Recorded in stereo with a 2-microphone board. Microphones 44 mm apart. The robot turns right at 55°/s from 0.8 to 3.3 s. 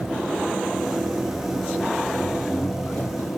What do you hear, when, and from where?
0.0 s an engine running: 105° right, 4 m; by 3.4 s 35° left, 4 m